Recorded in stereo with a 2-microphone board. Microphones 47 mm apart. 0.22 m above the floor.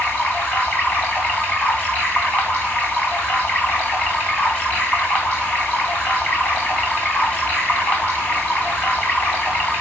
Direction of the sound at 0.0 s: 35° left (ahead or behind).